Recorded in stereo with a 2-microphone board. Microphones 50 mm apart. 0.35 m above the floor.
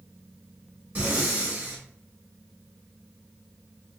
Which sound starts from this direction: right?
Breathing, at 0.9 s.